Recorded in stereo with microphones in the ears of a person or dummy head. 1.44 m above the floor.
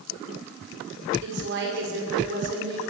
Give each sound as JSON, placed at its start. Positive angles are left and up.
{"t": 1.2, "sound": "a woman speaking", "side_deg": -60, "distance_m": 6.0}